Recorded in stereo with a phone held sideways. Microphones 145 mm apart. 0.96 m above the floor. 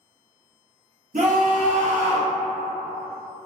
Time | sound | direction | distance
1.1 | a scream | 70° right (ahead or behind) | 1.0 m